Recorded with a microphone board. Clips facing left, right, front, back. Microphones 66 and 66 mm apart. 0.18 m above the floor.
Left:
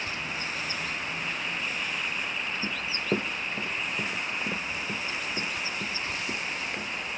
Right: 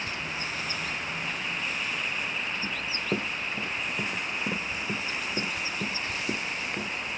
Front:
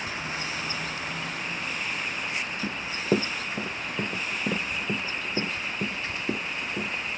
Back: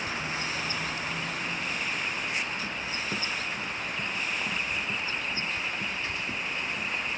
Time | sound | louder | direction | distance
2.6 | running footsteps | left 1 dB, front 5 dB | 20° left | ?